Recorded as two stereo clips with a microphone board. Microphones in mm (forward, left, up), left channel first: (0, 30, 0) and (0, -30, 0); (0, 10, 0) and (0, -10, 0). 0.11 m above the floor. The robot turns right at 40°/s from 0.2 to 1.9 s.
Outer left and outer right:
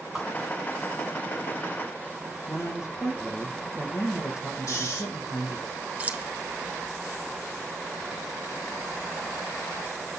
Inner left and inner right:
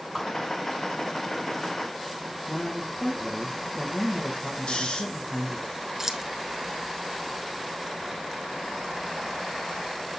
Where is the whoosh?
5° left (ahead or behind), 5 m.